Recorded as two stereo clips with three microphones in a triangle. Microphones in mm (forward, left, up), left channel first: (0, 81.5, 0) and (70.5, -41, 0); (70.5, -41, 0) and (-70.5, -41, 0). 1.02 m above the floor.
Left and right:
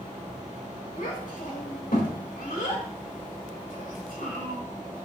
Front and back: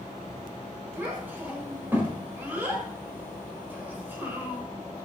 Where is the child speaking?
105° left, 4 m.